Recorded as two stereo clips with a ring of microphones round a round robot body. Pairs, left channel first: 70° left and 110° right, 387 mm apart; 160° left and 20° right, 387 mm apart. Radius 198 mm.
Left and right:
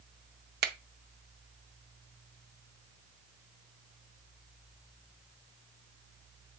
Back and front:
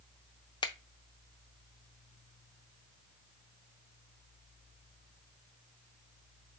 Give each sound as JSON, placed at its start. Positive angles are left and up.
{"t": 0.6, "sound": "a finger snap", "azimuth_deg": -140, "distance_m": 0.6}